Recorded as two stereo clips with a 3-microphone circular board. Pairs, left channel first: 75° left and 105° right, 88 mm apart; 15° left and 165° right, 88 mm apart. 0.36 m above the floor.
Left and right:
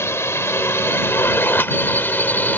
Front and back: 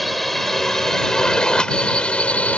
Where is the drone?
105° left; by 2.6 s 60° left.